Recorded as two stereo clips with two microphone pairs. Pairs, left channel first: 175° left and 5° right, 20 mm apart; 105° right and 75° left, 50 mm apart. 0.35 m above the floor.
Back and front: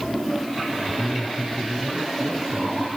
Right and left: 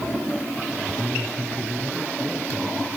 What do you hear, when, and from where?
0.8 s a man speaking: 20° left, 3.5 m